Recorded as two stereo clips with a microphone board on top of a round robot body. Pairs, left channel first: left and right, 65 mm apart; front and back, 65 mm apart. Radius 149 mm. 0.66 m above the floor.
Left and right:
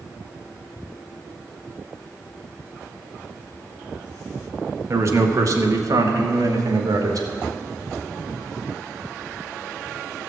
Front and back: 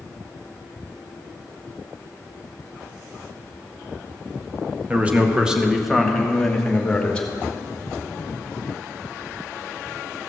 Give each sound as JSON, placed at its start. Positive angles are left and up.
{"t": 4.9, "sound": "a man speaking", "azimuth_deg": -120, "distance_m": 1.6}